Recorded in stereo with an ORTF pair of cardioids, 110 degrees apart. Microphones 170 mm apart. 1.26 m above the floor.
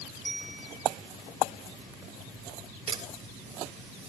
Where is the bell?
5° left, 3.5 m.